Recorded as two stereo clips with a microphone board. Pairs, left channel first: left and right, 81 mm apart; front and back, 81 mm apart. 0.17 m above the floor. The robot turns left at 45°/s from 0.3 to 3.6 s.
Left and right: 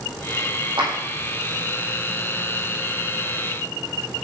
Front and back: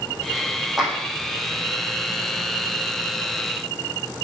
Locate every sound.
0.8 s a clap: 90° right, 7.5 m; by 0.9 s 95° right, 7.5 m